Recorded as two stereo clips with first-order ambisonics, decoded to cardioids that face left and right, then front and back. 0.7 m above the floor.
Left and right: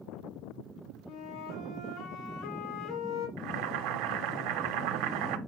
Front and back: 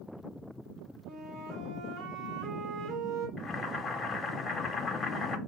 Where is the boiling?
80° right, 1.2 m.